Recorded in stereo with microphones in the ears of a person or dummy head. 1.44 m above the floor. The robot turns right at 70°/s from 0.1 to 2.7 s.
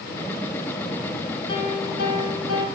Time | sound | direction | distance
1.5 | a piano | 30° left | 0.7 m